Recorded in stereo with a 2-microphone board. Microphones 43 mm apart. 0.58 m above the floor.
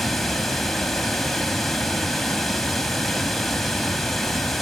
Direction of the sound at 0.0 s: 5° left (ahead or behind).